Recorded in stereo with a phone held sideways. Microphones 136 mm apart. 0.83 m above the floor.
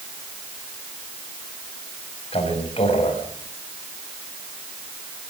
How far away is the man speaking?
About 5.5 m.